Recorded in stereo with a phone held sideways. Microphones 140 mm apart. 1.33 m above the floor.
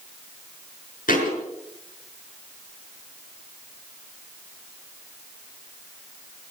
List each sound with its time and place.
1.1 s a thud: 80° left, 5 m